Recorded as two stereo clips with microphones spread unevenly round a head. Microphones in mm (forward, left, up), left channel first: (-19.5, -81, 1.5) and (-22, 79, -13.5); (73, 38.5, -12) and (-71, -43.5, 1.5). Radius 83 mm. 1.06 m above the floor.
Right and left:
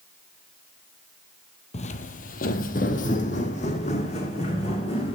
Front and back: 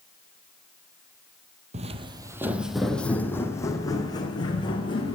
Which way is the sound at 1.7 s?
120° right.